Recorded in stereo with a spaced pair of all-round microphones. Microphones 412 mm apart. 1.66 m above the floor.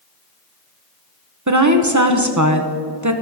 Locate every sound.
1.5 s a woman speaking: 45° right (ahead or behind), 1.1 m